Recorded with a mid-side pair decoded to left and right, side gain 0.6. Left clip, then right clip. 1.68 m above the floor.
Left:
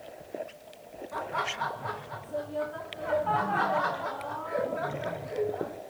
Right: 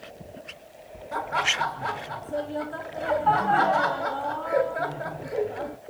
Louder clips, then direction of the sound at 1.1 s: Right 7 dB; 70° right.